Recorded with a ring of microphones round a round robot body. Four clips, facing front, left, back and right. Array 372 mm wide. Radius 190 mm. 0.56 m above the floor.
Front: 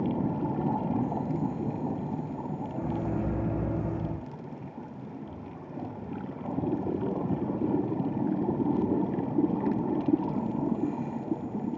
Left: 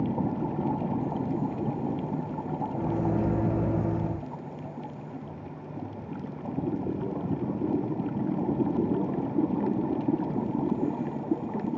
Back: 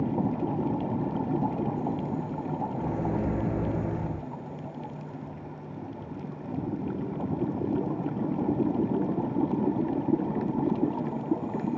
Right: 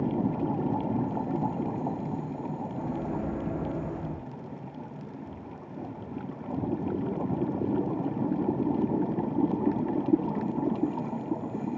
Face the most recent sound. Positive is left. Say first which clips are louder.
# left 6 dB, front 1 dB
turn(degrees=110)